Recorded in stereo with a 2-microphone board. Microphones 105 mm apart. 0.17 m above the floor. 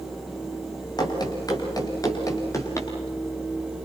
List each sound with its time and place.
1.0 s running footsteps: 40° left (ahead or behind), 5.5 m; by 2.9 s 30° left (ahead or behind), 6 m